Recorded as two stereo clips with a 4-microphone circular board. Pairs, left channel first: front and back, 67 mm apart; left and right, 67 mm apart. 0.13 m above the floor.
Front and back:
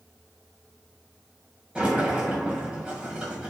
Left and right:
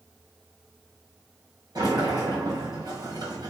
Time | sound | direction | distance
1.8 | a sliding door | 105° right | 2 m